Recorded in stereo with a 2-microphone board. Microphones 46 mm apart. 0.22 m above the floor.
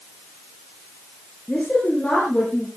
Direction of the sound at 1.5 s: 20° left (ahead or behind).